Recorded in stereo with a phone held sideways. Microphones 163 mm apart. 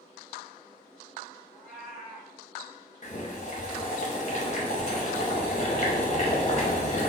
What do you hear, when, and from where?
1.5 s a cat meowing: 5° left (ahead or behind), 1.2 m
3.0 s boiling: 45° left (ahead or behind), 0.7 m